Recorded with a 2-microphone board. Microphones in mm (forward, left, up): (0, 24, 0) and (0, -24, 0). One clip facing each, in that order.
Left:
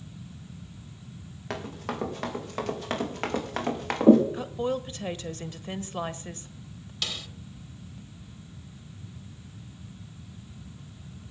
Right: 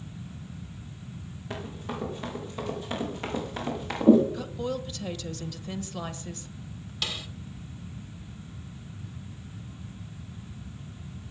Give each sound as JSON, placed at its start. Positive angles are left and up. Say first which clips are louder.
{"t": 1.5, "sound": "running footsteps", "louder": "left 2 dB", "side_deg": 70, "distance_m": 6.0}
{"t": 4.3, "sound": "a woman speaking", "louder": "left 3 dB", "side_deg": 30, "distance_m": 1.1}
{"t": 7.0, "sound": "a snare drum", "louder": "right 1 dB", "side_deg": -5, "distance_m": 1.3}